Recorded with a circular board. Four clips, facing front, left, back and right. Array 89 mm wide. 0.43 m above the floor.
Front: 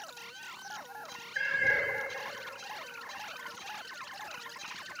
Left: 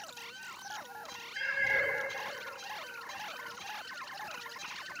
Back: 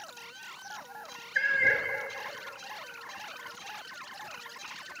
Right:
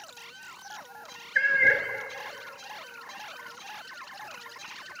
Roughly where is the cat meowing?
Right.